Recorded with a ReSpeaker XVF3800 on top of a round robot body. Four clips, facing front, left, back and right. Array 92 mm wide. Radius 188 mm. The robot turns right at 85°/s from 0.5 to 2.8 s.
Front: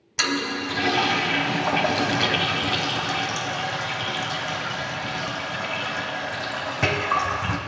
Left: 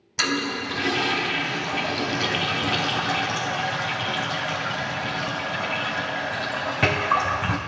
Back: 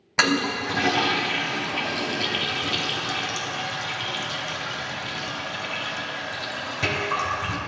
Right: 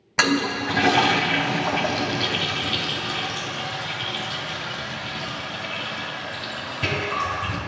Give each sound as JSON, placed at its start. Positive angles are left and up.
{"t": 0.2, "sound": "a toilet flushing", "azimuth_deg": -135, "distance_m": 1.2}